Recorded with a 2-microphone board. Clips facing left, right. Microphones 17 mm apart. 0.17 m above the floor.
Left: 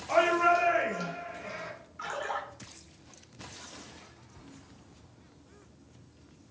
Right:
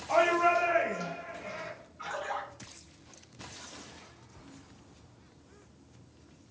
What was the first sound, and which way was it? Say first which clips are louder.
A shout: left 1 dB; 25° left (ahead or behind).